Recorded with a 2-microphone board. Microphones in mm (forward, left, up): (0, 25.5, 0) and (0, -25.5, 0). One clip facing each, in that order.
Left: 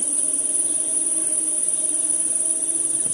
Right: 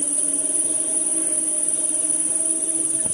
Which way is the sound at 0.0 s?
40° right (ahead or behind).